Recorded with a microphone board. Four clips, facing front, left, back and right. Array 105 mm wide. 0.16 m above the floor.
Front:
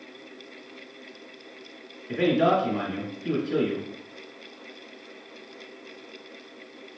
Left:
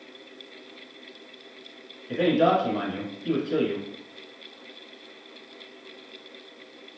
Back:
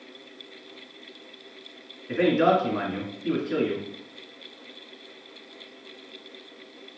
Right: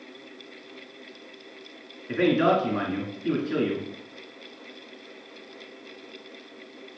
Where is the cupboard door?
No cupboard door in this recording.